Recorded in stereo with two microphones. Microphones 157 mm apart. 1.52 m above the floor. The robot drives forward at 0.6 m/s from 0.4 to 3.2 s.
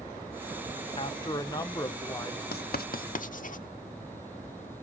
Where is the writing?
85° left, 0.6 m; by 3.6 s 60° left (ahead or behind), 0.7 m.